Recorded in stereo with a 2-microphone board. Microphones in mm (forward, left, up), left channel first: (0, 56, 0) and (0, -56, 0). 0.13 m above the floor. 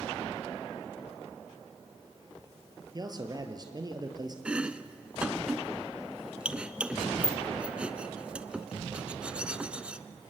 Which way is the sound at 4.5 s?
10° right (ahead or behind).